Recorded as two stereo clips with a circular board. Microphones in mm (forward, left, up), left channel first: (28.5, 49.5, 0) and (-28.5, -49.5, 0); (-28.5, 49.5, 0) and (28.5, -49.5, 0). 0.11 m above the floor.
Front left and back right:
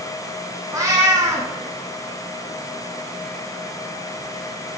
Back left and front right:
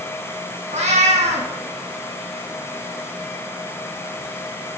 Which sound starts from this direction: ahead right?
A cat meowing, at 0.7 s.